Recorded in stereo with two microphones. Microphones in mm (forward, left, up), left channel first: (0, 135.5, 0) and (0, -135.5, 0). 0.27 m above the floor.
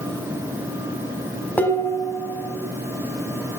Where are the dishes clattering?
5° left (ahead or behind), 1.3 m.